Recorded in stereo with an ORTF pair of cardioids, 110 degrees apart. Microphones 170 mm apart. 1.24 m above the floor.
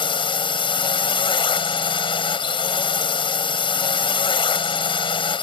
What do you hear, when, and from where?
0.0 s a drone: 30° left